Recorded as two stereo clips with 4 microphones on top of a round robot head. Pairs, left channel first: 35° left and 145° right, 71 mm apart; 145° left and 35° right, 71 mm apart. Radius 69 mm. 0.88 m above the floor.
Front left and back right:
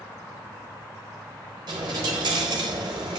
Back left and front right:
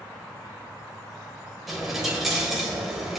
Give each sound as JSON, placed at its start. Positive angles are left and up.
{"t": 1.7, "sound": "a dropped coin", "azimuth_deg": -120, "distance_m": 1.0}